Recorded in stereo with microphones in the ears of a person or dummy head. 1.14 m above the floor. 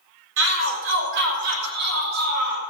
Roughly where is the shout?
Right.